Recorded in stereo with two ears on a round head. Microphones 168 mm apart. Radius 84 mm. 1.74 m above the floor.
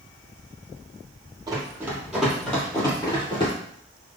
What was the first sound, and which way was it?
Running footsteps, 20° right (ahead or behind).